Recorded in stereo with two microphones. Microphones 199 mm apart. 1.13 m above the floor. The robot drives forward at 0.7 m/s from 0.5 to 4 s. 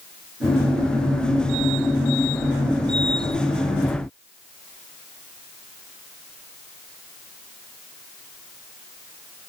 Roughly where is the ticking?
I don't hear ticking.